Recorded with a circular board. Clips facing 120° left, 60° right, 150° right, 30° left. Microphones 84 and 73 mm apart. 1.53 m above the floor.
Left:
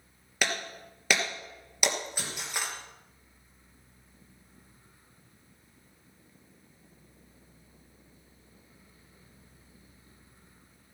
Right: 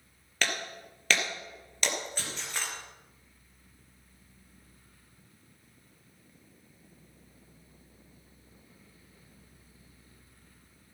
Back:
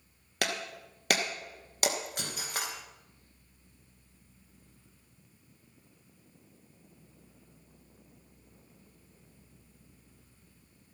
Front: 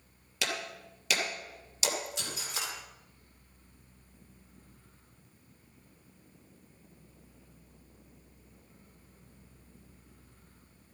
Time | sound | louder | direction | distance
0.4 | breaking glass | left 1 dB, back 2 dB | 165° right | 2.5 m